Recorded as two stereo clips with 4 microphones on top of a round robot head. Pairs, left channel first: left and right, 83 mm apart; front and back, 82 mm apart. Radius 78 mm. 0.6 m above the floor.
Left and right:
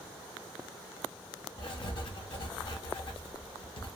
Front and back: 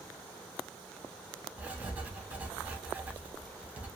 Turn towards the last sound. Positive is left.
turn(degrees=110)